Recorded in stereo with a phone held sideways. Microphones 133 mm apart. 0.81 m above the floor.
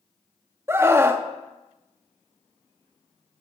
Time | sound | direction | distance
0.7 | a scream | 20° right (ahead or behind) | 0.9 m